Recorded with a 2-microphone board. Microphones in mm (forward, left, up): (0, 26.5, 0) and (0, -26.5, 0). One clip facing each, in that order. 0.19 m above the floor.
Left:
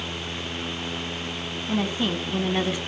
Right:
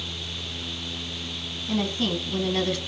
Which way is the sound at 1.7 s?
20° left (ahead or behind).